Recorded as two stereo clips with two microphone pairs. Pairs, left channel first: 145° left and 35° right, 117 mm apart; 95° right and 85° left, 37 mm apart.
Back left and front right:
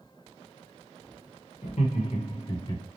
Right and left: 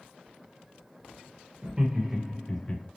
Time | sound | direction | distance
1.6 | laughter | 145° left | 1.0 m